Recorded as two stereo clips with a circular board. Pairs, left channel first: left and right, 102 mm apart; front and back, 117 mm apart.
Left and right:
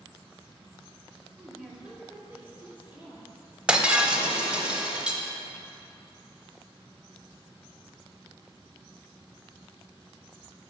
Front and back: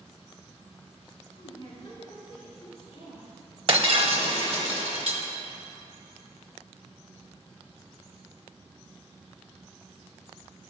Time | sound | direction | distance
1.4 | a woman speaking | 5° right | 1.6 m
3.7 | breaking glass | 165° right | 0.8 m